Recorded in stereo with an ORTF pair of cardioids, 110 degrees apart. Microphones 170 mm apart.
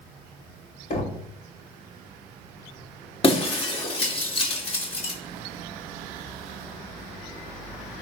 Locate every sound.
0.9 s knocking: 45° left, 2.5 m
3.2 s breaking glass: 35° left, 2.5 m